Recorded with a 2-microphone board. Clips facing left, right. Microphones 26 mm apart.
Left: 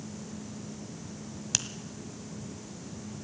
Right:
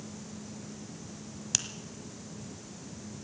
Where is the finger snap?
10° left (ahead or behind), 1.2 m.